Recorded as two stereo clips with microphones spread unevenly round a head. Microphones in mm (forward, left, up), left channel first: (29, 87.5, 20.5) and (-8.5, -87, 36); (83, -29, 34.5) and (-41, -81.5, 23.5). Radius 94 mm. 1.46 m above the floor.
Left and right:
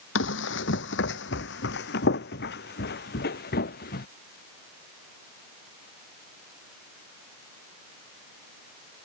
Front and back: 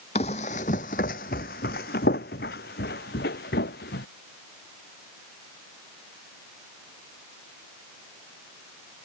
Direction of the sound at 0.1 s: 70° left.